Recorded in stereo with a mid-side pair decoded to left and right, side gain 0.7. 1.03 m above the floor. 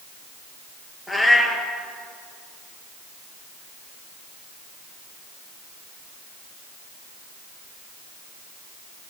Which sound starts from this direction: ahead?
A cat meowing, at 1.1 s.